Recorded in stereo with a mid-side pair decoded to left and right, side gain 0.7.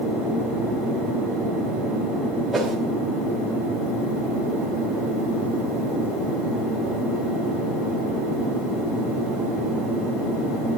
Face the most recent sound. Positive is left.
turn(degrees=-15)